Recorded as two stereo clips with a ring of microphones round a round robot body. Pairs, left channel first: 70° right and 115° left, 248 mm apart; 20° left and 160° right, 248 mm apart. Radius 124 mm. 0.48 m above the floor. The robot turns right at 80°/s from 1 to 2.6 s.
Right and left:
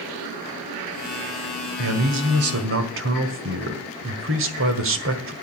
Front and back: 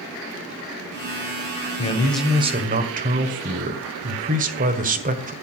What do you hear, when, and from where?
1.8 s a man speaking: 80° left, 1.8 m; by 5.3 s 145° left, 1.8 m